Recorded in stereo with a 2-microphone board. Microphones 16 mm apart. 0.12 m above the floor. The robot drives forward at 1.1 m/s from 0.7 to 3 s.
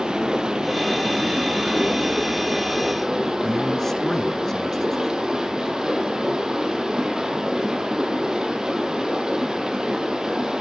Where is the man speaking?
20° left (ahead or behind), 1.5 m.